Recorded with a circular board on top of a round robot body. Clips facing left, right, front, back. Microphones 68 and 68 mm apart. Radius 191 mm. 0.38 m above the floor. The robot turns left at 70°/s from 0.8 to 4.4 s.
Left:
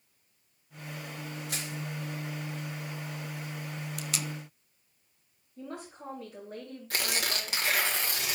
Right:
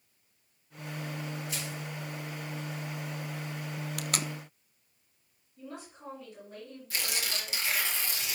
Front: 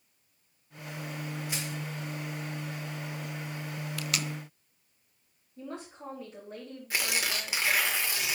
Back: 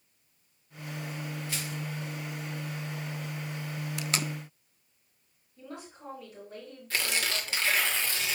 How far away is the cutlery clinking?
I don't hear cutlery clinking.